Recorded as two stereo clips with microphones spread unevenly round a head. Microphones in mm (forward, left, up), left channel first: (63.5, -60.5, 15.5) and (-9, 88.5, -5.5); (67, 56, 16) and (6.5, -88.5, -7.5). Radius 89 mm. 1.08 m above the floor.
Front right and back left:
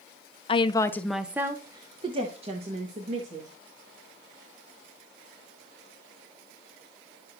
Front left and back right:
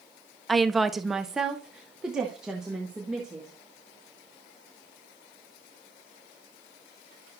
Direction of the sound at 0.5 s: 40° right.